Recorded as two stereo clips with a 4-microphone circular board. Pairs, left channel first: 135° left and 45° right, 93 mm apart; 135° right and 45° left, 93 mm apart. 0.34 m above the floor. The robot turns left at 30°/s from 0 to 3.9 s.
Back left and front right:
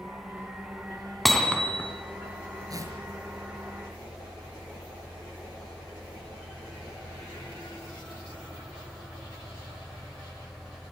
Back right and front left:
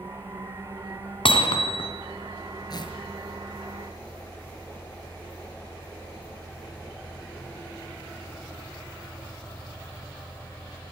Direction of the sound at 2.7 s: 95° right.